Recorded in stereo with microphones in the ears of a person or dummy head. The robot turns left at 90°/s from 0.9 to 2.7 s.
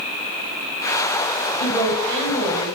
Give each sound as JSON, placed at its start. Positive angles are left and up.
{"t": 1.6, "sound": "a woman speaking", "azimuth_deg": 25, "distance_m": 1.6}